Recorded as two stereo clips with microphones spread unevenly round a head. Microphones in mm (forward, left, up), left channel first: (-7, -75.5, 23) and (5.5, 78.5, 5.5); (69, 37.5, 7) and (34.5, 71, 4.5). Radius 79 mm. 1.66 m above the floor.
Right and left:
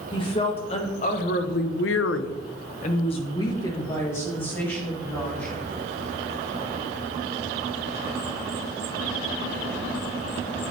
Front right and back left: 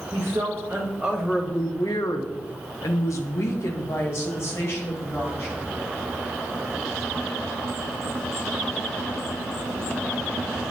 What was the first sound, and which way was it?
A woman speaking, 155° right.